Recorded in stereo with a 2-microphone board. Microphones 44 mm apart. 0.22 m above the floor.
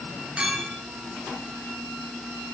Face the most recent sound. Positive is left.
turn(degrees=-25)  # may be behind; listen again after turning